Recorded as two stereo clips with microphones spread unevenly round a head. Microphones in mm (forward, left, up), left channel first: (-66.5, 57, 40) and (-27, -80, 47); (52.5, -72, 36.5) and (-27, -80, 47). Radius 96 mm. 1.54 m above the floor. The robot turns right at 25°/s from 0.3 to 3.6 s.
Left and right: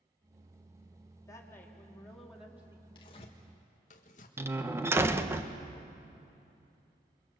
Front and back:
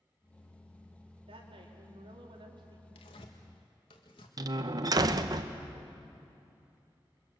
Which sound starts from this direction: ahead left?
Tearing paper, at 3.0 s.